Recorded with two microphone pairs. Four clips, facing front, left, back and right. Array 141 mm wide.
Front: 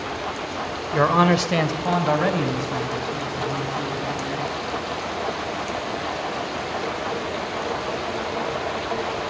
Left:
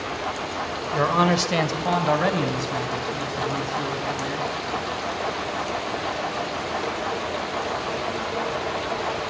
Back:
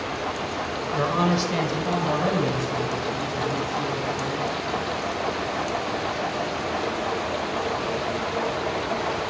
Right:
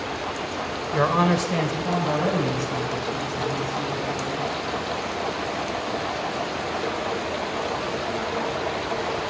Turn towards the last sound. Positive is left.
turn(degrees=70)